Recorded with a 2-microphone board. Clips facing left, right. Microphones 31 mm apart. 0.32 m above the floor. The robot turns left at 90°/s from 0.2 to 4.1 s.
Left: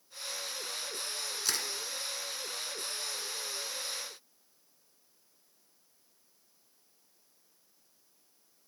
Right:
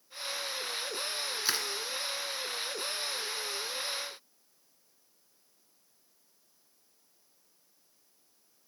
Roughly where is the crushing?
Right.